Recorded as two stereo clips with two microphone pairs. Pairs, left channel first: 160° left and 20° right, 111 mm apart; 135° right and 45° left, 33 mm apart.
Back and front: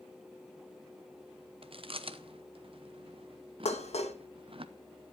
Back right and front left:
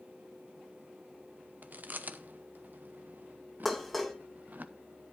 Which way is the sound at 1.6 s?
15° left.